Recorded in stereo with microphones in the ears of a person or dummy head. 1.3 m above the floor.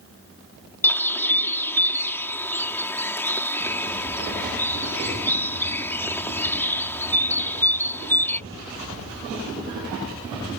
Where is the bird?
10° left (ahead or behind).